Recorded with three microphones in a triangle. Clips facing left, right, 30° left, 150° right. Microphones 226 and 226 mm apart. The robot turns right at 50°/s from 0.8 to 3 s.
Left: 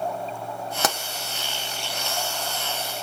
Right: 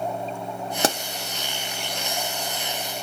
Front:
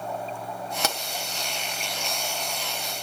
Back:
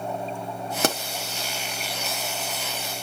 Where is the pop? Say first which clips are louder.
Right 4 dB, back 8 dB; 145° right, 1.0 m; by 1.0 s 140° right, 1.0 m.